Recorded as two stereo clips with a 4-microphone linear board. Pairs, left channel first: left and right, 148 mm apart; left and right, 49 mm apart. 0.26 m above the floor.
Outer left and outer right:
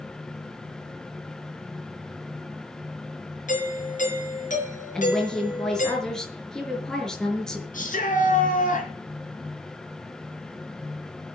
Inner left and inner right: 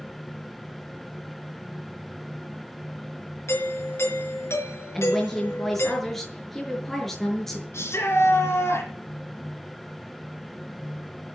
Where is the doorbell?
60° left (ahead or behind), 5 m.